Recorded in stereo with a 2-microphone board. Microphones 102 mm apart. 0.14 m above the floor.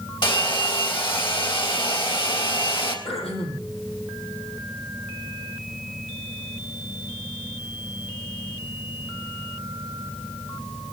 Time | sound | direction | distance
0.2 | a hair dryer | 50° left (ahead or behind) | 3.5 m
3.0 | throat clearing | 75° left (ahead or behind) | 4.5 m